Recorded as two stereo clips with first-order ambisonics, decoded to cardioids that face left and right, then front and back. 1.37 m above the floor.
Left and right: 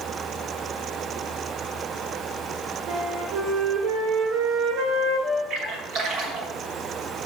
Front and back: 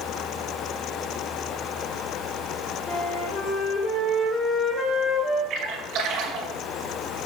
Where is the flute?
60° right, 2 m.